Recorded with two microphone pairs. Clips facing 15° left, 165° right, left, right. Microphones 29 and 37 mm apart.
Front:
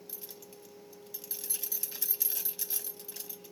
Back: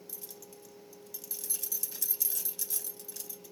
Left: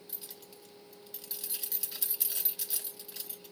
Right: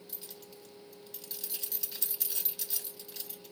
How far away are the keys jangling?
About 0.7 m.